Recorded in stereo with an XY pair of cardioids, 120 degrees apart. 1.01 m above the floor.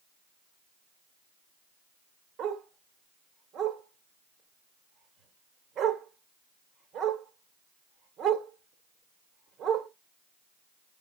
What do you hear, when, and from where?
2.4 s a dog barking: 70° right, 1.3 m